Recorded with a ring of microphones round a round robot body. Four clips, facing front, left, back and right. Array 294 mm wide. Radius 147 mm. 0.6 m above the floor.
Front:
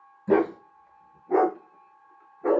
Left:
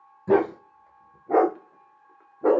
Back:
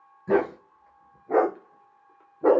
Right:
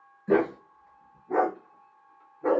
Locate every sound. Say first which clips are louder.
0.3 s a dog barking: left 3 dB, front 1 dB; 95° left, 1.7 m; by 2.6 s 160° left, 0.7 m